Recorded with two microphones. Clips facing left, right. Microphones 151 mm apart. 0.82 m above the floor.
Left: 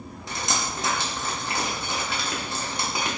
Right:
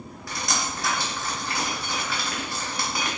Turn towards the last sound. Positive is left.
turn(degrees=20)  # may be behind; listen again after turning